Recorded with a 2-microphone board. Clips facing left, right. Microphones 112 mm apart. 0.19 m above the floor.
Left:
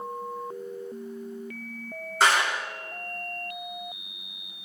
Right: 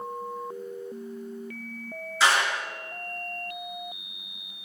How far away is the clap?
About 3 m.